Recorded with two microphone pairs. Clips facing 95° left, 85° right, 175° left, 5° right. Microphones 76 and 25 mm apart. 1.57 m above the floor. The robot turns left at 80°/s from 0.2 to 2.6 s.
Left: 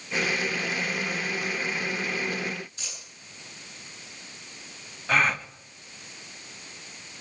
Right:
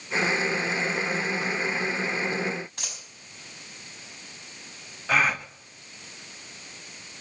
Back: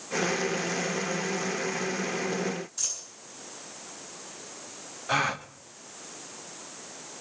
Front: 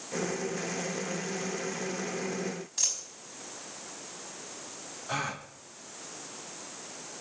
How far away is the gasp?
About 0.9 m.